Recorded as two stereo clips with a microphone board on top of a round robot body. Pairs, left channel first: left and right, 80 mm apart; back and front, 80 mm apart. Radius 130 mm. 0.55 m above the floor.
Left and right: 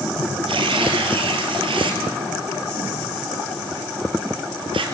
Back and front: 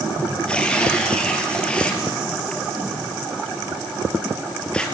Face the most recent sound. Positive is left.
turn(degrees=-100)